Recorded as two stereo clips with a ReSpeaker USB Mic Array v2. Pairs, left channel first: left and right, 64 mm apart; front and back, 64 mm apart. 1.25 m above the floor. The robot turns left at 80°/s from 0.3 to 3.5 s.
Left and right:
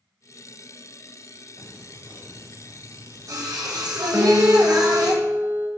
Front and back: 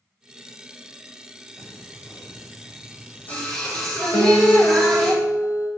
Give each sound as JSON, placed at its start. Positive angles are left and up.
{"t": 1.6, "sound": "singing", "azimuth_deg": 70, "distance_m": 3.5}
{"t": 4.1, "sound": "a guitar", "azimuth_deg": -30, "distance_m": 2.0}